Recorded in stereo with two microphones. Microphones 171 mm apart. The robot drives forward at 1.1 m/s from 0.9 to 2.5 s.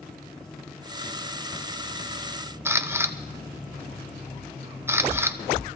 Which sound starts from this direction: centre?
A camera shutter, at 2.6 s.